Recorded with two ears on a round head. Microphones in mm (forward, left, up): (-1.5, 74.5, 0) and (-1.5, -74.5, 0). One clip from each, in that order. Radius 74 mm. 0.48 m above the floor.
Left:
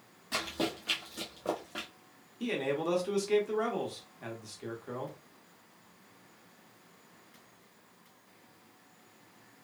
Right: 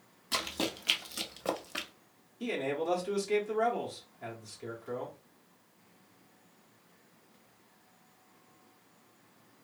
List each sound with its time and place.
0.3 s running footsteps: 35° right (ahead or behind), 1.0 m; by 1.9 s 45° right (ahead or behind), 0.6 m
2.4 s a man speaking: 10° left (ahead or behind), 0.9 m